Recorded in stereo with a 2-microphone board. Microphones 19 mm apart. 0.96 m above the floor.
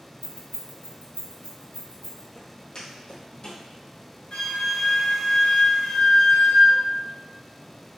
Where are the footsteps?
40° left (ahead or behind), 1.5 m; by 3.6 s 60° left (ahead or behind), 2.5 m.